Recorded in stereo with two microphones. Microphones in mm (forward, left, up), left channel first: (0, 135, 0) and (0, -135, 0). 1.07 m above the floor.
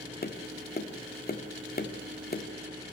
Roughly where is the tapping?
Left.